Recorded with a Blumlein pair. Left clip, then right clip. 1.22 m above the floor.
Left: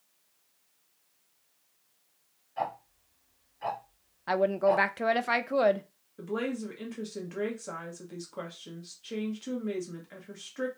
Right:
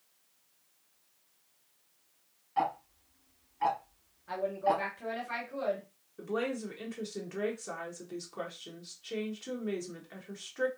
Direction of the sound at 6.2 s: 5° left.